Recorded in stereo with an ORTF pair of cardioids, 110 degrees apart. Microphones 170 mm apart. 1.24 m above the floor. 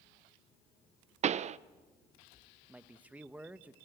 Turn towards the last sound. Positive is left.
turn(degrees=-10)